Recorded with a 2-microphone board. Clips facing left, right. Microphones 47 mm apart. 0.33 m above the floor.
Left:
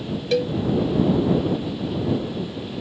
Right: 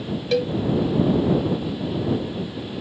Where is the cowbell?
Centre (ahead or behind).